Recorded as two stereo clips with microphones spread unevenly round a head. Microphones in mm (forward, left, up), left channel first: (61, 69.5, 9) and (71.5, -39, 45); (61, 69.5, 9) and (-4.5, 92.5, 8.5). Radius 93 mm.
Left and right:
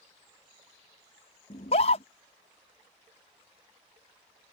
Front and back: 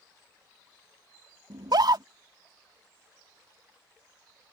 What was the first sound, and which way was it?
A scream, 140° left.